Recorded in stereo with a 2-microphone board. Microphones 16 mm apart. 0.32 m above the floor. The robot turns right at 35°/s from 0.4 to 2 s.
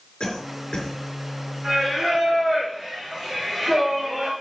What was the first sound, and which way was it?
A cough, 70° left (ahead or behind).